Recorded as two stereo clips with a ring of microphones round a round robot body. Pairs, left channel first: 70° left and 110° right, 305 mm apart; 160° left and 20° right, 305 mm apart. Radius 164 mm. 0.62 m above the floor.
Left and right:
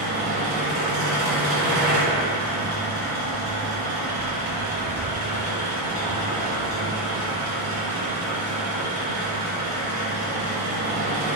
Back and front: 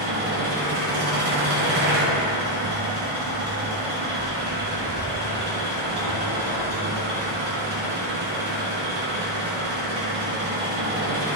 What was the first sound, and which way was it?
An engine running, 70° right.